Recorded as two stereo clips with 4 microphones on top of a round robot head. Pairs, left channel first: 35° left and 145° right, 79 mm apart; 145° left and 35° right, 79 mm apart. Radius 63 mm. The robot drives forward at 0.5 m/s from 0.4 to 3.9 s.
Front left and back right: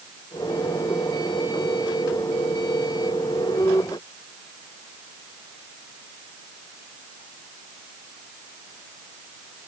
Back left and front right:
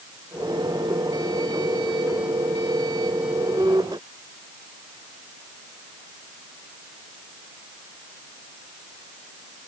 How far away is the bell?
I don't hear a bell.